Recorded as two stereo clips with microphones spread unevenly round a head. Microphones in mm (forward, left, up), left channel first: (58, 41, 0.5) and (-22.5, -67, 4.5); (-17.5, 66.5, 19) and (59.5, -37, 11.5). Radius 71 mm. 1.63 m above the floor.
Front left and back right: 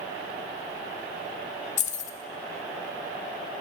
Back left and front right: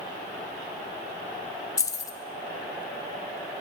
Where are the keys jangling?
70° left, 0.8 m.